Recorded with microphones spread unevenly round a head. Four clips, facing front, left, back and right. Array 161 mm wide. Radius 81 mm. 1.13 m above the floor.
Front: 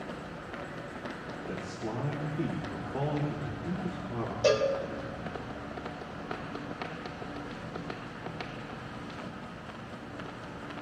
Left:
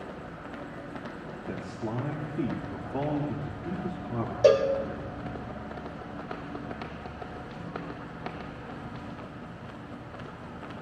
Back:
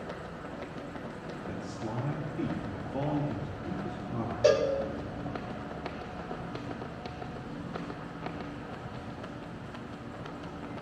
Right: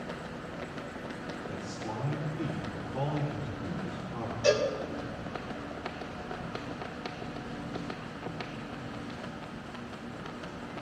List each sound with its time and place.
1.5 s a man speaking: 90° left, 3 m
4.4 s a cowbell: 100° left, 2.5 m